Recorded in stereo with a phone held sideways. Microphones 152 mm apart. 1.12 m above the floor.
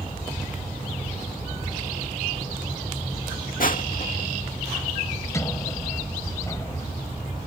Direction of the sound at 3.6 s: 65° left (ahead or behind).